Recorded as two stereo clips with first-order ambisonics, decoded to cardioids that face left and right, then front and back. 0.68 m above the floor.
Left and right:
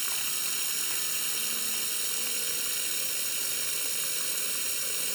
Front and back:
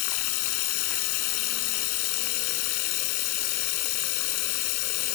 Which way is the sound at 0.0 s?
5° right.